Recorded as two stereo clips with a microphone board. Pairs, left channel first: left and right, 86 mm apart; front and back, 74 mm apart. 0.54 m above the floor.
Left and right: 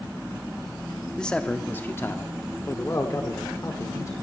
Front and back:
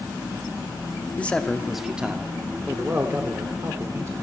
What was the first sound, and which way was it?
A man speaking, 25° left.